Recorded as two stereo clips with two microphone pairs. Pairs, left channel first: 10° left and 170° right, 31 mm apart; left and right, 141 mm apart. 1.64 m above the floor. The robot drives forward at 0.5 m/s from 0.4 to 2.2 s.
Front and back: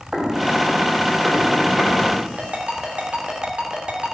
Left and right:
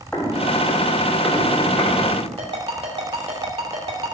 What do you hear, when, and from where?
0.1 s footsteps: 160° left, 2 m; by 2.3 s 155° left, 4 m
2.4 s a ringtone: 130° right, 2.5 m